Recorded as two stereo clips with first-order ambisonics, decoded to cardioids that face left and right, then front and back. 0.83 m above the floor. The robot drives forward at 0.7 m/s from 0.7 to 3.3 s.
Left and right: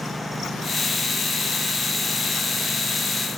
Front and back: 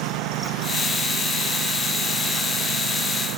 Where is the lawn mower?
Straight behind.